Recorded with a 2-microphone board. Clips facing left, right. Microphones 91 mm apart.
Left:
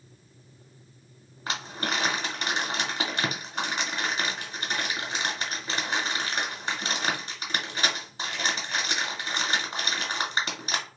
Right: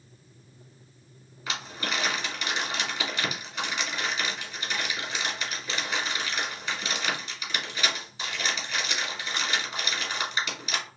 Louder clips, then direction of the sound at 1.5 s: Left 2 dB; 40° left (ahead or behind).